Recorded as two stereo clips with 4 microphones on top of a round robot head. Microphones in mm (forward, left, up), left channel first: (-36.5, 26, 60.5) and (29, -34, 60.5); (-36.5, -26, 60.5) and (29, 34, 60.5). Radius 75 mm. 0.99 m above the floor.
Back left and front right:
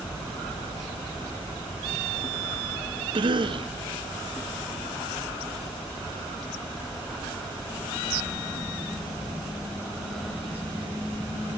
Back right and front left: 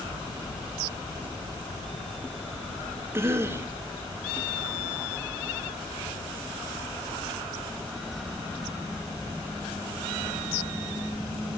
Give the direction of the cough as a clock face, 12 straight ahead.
1 o'clock.